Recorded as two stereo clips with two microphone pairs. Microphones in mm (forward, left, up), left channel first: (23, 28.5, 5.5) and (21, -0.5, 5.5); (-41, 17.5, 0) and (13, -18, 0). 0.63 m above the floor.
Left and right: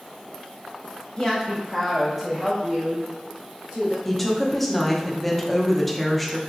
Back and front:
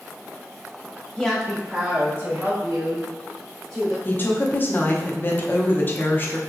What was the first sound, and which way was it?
A woman speaking, 85° left.